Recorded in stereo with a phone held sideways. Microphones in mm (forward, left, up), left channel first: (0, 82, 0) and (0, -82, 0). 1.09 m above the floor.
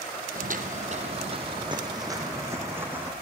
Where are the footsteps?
55° right (ahead or behind), 2 m; by 3.1 s 10° right (ahead or behind), 4 m.